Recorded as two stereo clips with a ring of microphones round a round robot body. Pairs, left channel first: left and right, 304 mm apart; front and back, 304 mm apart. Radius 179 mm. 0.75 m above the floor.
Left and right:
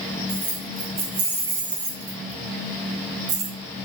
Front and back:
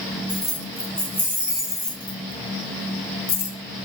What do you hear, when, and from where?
0.3 s keys jangling: 100° right, 2.5 m; by 3.9 s 45° right, 1.0 m